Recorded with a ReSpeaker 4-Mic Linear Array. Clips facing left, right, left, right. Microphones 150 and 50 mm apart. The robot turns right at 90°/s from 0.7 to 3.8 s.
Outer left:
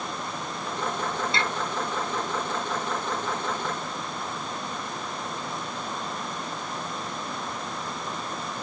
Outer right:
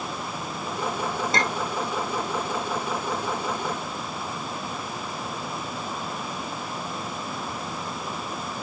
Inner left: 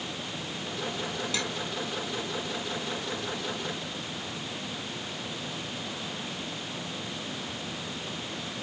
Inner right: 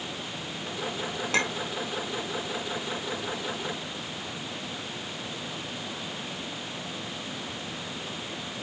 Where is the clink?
45° right (ahead or behind); by 1.7 s 10° right (ahead or behind).